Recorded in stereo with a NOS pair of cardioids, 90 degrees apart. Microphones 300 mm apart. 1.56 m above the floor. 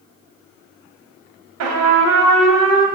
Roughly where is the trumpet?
Ahead right.